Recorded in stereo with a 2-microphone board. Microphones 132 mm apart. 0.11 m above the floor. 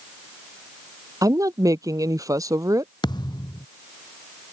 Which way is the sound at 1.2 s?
25° right (ahead or behind).